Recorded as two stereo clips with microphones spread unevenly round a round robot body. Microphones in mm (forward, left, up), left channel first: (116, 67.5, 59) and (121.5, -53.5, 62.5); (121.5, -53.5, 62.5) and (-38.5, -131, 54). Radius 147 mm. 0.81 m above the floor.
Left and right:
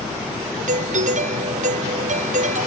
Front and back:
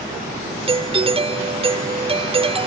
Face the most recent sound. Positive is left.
turn(degrees=-100)